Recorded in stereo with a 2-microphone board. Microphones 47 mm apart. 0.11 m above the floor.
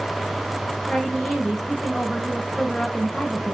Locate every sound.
0.9 s a woman speaking: 10° left (ahead or behind), 7 m